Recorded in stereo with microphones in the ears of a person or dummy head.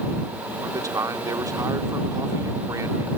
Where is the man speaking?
15° right (ahead or behind).